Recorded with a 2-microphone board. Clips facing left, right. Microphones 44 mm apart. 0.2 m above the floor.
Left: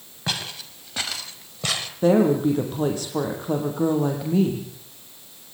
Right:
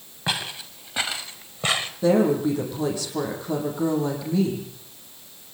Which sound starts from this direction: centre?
Footsteps, at 0.3 s.